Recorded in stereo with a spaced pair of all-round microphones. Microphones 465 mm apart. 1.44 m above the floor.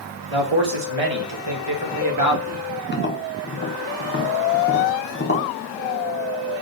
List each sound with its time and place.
0.3 s a man speaking: 75° right (ahead or behind), 1.2 m; by 2.6 s 30° right (ahead or behind), 1.2 m
2.9 s tapping: 25° left (ahead or behind), 0.7 m